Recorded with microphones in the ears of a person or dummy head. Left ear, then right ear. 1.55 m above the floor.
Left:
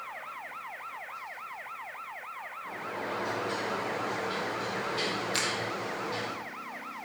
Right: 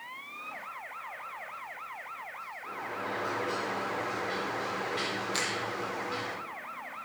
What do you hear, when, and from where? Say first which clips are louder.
2.6 s a sliding door: even; 40° right (ahead or behind), 2 m
5.3 s a finger snap: left 2 dB; 5° left (ahead or behind), 0.6 m